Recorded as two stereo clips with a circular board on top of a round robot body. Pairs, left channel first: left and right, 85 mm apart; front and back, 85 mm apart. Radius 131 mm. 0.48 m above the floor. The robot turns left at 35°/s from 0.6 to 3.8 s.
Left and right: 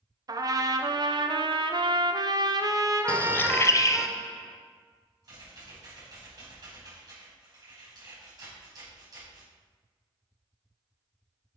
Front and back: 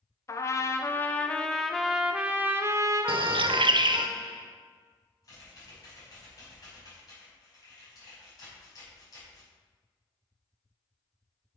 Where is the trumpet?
50° right, 1.0 m; by 4.1 s 165° right, 1.0 m.